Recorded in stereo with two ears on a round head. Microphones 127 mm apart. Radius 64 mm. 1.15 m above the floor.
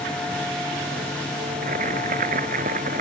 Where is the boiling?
60° right (ahead or behind).